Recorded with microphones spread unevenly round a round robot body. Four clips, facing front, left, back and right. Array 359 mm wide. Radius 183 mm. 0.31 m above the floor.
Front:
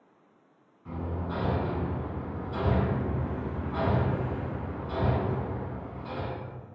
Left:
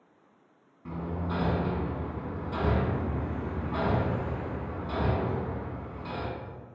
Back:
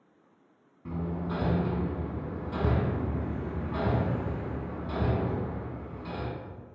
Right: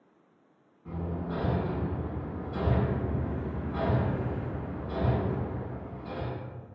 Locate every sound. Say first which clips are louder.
0.8 s hammering: left 1 dB, back 1 dB; 145° left, 1.1 m